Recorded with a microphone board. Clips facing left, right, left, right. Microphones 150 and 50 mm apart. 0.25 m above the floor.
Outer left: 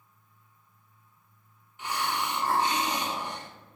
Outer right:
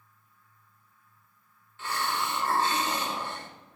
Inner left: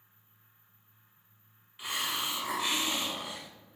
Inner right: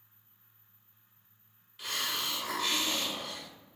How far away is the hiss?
About 0.7 m.